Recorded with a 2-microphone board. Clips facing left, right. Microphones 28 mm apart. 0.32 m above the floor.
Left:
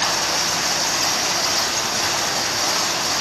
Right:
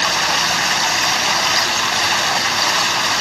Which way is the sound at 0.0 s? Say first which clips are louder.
Right 4 dB; 60° right (ahead or behind).